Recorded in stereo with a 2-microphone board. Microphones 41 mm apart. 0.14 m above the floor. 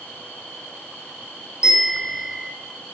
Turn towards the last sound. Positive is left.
turn(degrees=-20)  # may be behind; listen again after turning